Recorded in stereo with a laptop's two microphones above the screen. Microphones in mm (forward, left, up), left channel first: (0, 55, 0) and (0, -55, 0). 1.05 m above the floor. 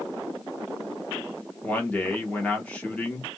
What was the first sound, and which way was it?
A man speaking, 10° left (ahead or behind).